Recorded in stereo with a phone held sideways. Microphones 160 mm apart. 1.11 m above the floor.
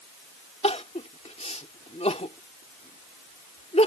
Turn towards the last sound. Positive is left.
turn(degrees=45)  # may be behind; listen again after turning